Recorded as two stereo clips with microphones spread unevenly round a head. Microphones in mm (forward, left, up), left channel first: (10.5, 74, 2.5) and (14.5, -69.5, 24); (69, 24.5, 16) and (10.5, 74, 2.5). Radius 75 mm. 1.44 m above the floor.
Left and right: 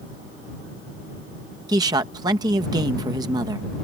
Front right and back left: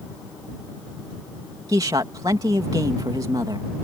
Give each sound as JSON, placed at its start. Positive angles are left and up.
{"t": 1.7, "sound": "a man speaking", "azimuth_deg": -155}